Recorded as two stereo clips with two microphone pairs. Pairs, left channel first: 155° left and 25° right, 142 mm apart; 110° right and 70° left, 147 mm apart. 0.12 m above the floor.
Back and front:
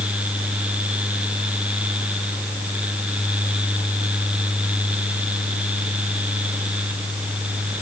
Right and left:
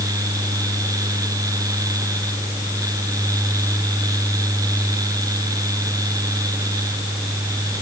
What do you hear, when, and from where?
Only background noise.